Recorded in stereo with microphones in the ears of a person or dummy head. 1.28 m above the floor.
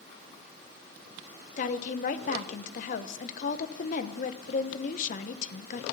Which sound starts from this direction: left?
A woman speaking, at 1.6 s.